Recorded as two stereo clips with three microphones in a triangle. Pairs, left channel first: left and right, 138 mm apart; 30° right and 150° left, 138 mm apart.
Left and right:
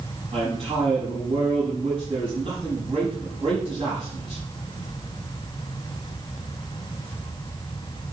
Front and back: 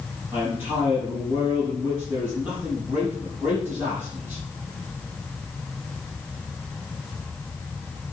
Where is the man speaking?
135° right, 7 m.